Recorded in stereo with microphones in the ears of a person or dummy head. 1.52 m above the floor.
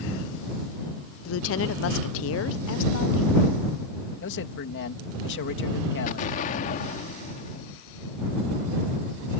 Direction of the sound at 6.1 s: 30° left (ahead or behind).